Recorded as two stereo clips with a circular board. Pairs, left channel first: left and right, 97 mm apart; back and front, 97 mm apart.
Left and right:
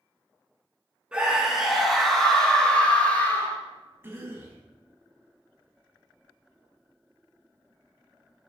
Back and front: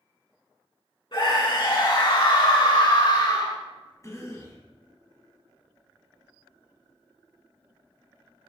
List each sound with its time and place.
1.1 s a scream: 165° right, 2 m; by 3.6 s 155° left, 2.5 m
4.0 s a cough: 145° right, 1.5 m